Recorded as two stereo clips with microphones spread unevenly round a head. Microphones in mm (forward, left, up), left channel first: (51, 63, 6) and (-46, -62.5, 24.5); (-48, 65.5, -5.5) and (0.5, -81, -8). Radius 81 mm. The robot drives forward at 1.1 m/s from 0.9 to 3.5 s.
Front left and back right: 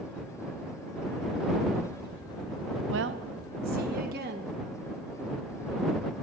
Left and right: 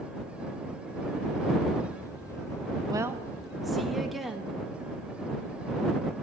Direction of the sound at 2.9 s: 135° right.